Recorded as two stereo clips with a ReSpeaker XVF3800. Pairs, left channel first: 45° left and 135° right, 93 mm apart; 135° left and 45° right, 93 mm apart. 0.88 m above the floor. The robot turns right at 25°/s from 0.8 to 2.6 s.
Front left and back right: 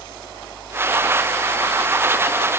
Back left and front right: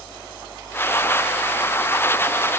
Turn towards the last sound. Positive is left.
No sound to turn to.